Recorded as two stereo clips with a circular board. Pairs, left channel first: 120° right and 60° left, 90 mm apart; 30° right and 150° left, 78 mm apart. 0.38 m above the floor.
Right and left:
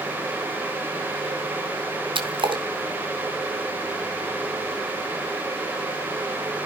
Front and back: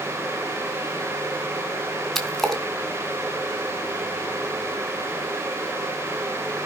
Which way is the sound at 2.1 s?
55° left.